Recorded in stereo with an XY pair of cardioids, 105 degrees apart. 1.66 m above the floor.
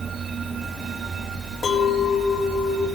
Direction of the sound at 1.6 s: 35° left.